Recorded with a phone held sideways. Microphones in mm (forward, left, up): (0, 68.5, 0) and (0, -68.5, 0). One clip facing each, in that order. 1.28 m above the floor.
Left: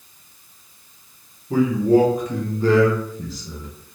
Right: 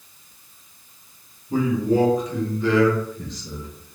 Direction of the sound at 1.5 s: 65° left (ahead or behind).